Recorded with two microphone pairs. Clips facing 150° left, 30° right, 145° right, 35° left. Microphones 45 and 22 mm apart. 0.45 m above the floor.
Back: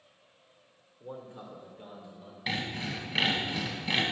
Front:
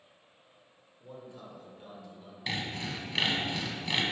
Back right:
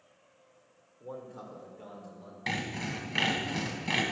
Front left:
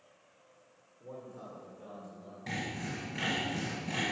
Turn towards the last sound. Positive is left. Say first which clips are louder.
# back 2 dB, back right 4 dB
turn(degrees=-130)